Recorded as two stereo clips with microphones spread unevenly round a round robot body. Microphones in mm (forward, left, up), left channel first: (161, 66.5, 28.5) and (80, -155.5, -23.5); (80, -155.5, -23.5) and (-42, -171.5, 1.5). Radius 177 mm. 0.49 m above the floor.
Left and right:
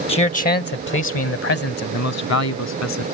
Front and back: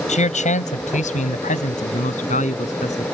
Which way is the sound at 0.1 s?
Straight ahead.